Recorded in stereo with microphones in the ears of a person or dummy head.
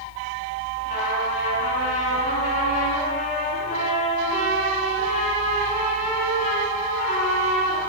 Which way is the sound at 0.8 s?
50° left (ahead or behind).